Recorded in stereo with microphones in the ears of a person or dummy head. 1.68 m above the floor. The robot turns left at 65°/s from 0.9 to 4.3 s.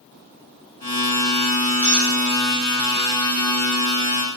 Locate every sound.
1.8 s a squeak: 10° left (ahead or behind), 0.9 m; by 2.1 s 5° right (ahead or behind), 0.9 m